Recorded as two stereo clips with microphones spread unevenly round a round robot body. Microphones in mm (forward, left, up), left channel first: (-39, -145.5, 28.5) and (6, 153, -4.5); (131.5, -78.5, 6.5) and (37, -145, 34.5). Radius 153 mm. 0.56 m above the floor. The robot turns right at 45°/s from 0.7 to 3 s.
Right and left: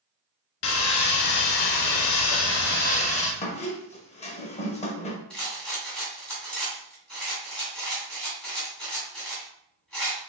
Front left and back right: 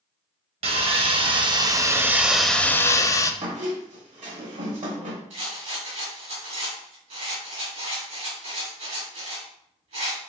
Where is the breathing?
I don't hear breathing.